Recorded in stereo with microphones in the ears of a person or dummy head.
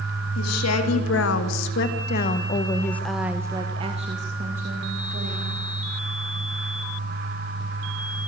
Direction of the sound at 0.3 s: 85° left.